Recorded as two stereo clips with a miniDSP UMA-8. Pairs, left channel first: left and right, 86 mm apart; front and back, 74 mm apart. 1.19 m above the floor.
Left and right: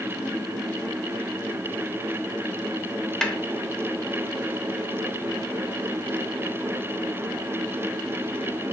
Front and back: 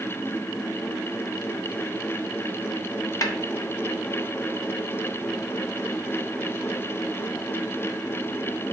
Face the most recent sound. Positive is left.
turn(degrees=10)